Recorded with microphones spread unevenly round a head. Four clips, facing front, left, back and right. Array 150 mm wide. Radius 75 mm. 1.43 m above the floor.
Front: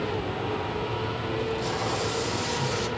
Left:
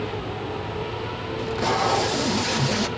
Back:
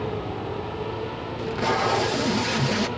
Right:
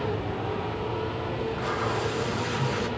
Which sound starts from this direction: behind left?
Tape being pulled, at 1.4 s.